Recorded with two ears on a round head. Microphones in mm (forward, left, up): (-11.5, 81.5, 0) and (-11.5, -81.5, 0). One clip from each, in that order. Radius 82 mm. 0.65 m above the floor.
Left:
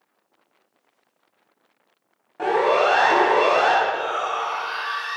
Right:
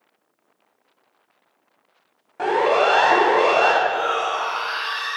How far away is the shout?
About 4.5 m.